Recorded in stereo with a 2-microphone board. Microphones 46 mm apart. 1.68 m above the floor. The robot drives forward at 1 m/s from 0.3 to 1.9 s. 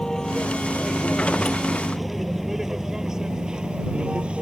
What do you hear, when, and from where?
0.0 s a vehicle: 15° left (ahead or behind); by 4.4 s 25° right (ahead or behind)